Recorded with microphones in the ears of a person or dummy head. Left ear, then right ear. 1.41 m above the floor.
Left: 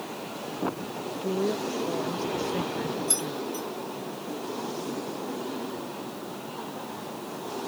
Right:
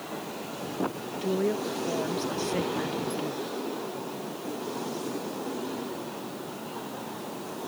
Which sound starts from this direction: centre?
A woman speaking, at 1.2 s.